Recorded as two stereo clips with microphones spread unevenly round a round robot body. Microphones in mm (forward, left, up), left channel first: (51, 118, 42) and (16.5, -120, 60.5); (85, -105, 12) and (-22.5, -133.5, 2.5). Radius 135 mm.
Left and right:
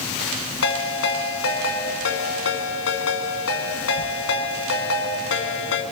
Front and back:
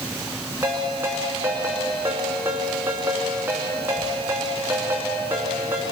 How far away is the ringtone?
About 2 m.